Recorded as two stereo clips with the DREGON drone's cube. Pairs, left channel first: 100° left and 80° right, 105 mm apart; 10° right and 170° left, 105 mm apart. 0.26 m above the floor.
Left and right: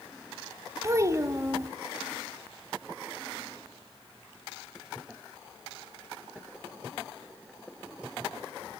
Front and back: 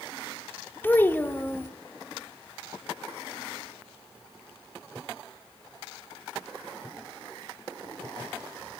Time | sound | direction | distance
0.8 | a child speaking | 65° right | 0.8 m